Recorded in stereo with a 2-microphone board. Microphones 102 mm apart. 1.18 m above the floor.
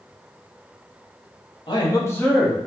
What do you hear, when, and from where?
1.7 s a man speaking: 50° left (ahead or behind), 0.9 m; by 2.7 s 20° right (ahead or behind), 0.7 m